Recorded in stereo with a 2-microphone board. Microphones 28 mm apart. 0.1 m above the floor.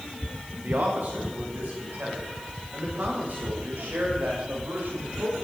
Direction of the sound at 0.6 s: 65° right (ahead or behind).